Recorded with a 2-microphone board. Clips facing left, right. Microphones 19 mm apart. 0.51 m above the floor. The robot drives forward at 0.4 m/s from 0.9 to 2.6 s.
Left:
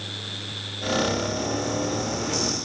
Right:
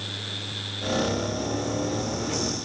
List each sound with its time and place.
Only background noise.